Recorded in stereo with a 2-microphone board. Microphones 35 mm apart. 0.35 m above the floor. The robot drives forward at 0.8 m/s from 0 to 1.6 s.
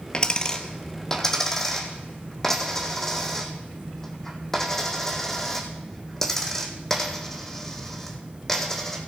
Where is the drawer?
No drawer in this recording.